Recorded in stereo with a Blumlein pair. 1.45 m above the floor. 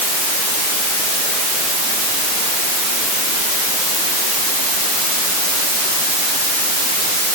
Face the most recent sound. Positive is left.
No sound to turn to.